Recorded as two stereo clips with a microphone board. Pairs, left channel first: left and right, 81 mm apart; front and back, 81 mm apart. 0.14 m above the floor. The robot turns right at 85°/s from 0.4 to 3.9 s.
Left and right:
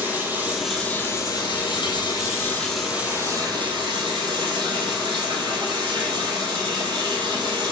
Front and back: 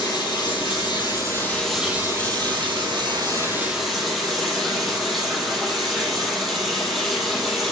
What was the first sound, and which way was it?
Running water, 25° right.